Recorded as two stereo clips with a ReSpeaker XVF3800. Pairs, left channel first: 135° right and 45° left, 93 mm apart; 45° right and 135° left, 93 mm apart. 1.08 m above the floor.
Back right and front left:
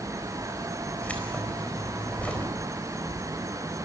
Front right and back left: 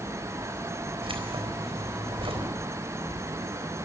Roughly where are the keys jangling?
Behind left.